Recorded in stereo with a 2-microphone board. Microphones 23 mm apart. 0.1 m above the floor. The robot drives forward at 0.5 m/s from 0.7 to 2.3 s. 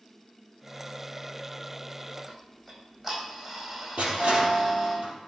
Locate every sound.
2.3 s ticking: 5° right (ahead or behind), 4 m
4.0 s crushing: 65° right (ahead or behind), 3.5 m